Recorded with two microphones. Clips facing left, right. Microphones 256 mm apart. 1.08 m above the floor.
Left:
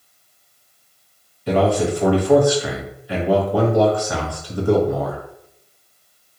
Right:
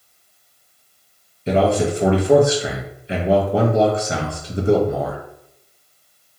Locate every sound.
1.5 s a man speaking: 25° right (ahead or behind), 0.8 m